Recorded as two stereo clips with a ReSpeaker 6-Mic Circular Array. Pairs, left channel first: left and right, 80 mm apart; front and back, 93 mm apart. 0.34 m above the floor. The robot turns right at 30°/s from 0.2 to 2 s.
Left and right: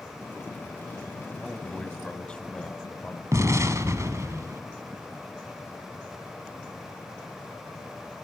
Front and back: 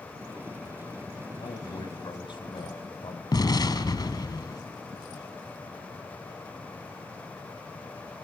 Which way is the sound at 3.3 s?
40° right.